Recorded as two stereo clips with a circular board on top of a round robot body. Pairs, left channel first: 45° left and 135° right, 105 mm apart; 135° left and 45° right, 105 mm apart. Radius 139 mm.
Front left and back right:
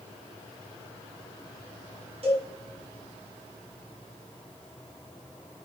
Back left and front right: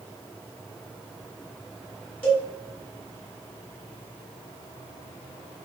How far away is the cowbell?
About 1.9 m.